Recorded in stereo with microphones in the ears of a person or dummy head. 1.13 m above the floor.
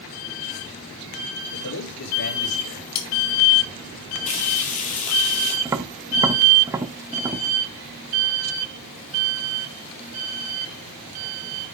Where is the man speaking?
75° left (ahead or behind), 6 m.